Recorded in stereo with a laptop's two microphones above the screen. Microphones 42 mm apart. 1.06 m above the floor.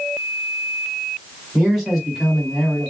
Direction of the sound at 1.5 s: 15° right (ahead or behind).